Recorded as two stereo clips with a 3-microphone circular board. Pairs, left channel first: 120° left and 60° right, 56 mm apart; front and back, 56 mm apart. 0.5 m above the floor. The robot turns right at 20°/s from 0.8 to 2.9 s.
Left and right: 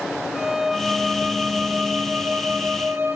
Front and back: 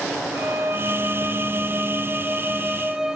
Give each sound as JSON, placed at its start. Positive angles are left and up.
{"t": 0.3, "sound": "a violin", "azimuth_deg": -145, "distance_m": 0.5}